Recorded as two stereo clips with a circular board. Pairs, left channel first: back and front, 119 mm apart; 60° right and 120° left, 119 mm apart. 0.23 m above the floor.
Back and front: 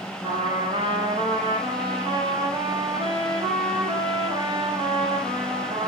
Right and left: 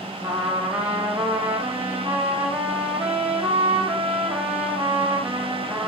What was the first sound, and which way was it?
A trumpet, 45° left.